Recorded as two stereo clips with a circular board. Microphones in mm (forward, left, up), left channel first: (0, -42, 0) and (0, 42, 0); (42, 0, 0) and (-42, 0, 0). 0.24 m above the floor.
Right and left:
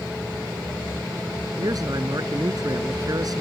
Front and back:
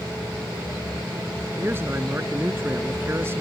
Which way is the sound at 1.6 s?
125° left.